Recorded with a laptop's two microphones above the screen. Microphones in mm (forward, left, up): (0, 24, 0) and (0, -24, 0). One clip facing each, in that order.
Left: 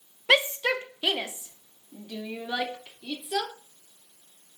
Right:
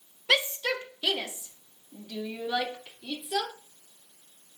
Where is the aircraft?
I don't hear an aircraft.